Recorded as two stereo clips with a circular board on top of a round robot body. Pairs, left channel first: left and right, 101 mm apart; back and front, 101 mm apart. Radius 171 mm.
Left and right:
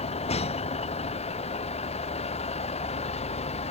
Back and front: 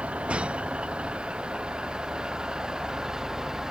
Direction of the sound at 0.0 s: 80° left.